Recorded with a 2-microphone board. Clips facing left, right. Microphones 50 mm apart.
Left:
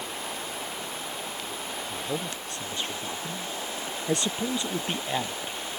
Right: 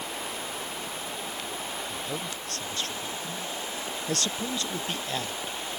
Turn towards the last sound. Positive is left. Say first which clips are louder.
# left 2 dB
turn(degrees=20)  # may be behind; listen again after turning